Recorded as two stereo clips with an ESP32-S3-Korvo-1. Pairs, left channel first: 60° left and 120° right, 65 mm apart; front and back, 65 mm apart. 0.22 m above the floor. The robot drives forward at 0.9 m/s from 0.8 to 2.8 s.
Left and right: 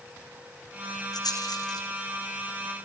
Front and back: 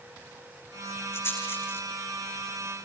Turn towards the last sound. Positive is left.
turn(degrees=65)